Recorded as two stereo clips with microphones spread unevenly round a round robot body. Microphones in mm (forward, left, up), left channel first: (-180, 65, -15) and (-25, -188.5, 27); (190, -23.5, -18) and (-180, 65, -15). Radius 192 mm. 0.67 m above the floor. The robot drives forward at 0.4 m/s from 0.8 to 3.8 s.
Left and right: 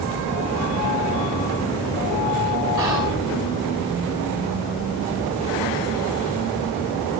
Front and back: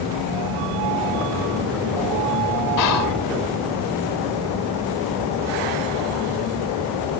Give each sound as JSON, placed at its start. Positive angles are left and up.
{"t": 2.8, "sound": "whispering", "azimuth_deg": 25, "distance_m": 6.0}